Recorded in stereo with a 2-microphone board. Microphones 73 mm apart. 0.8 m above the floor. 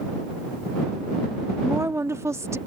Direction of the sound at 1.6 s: 45° right (ahead or behind).